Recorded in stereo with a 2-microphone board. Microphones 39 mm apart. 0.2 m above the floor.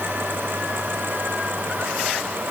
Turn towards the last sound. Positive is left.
No sound to turn to.